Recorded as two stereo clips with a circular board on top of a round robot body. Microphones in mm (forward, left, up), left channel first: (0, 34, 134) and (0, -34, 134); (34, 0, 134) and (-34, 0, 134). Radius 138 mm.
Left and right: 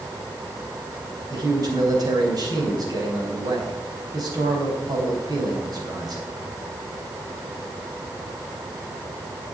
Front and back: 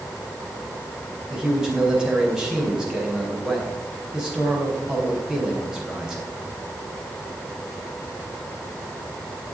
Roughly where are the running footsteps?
I don't hear running footsteps.